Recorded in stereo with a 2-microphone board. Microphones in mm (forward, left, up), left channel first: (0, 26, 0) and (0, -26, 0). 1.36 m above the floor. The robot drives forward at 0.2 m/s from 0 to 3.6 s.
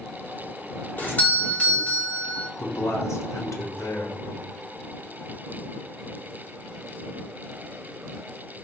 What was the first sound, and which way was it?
A doorbell, 35° left (ahead or behind).